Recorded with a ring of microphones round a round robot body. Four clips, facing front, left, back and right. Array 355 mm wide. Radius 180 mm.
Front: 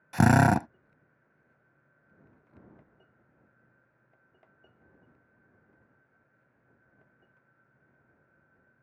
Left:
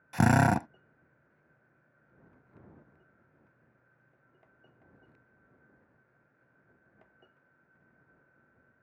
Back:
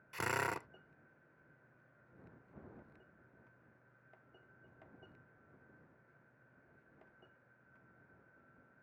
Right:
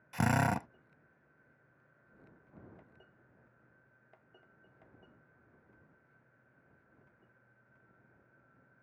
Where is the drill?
25° left.